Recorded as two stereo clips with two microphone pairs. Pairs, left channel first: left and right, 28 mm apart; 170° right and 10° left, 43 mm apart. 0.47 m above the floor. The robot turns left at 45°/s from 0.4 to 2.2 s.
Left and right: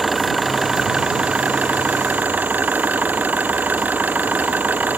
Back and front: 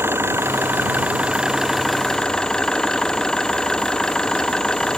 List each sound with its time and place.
0.0 s an engine running: 10° right; by 5.0 s 90° right